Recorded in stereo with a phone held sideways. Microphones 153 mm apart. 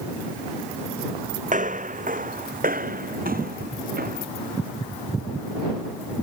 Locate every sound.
1.5 s footsteps: 55° right (ahead or behind); by 4.3 s 70° right (ahead or behind)